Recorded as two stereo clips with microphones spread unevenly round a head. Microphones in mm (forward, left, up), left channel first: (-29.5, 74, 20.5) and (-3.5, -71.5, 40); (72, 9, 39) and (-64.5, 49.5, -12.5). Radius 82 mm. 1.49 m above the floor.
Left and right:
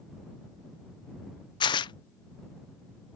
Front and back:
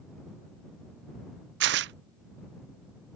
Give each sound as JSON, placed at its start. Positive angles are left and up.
{"t": 1.6, "sound": "tearing paper", "azimuth_deg": 165}